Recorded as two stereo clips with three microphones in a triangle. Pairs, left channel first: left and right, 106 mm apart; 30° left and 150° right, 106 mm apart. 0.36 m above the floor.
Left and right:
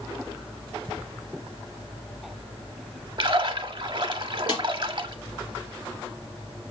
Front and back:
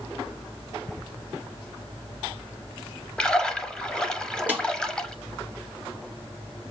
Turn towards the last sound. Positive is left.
turn(degrees=140)